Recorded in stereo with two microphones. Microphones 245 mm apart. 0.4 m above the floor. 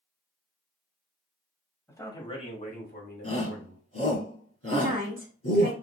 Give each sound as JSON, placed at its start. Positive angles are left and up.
{"t": 1.9, "sound": "a man speaking", "side_deg": 10, "distance_m": 2.0}
{"t": 3.2, "sound": "a shout", "side_deg": 70, "distance_m": 3.0}
{"t": 4.7, "sound": "a woman speaking", "side_deg": -35, "distance_m": 1.4}